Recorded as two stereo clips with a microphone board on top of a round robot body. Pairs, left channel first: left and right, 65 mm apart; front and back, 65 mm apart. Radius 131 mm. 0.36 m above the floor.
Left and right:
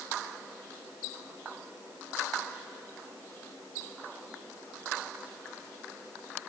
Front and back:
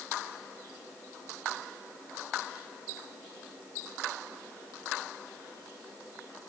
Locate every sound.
Only background noise.